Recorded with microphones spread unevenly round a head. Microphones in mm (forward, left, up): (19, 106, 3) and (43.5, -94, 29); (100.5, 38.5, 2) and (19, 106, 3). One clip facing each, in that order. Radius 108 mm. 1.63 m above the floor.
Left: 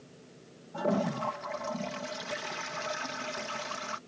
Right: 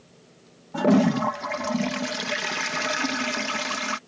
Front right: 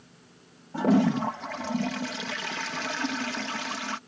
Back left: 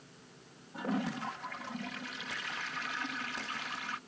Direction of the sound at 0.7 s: 75° right.